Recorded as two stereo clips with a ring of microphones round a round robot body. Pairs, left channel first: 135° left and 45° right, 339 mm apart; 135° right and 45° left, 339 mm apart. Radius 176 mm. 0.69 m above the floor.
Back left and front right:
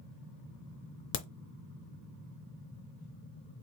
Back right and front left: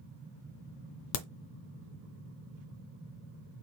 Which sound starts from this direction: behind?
A crack, at 1.1 s.